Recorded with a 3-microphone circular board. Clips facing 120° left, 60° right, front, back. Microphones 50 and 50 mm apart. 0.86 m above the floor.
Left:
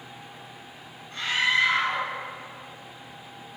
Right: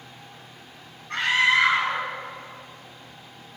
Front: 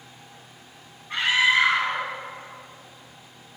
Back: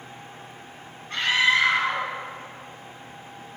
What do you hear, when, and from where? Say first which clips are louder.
1.1 s a scream: right 4 dB, front 1 dB; 80° right, 7.5 m